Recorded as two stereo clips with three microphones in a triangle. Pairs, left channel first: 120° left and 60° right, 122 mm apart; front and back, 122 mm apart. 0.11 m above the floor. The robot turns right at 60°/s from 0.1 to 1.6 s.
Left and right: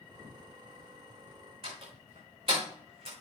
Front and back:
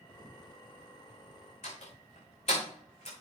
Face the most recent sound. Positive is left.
turn(degrees=-20)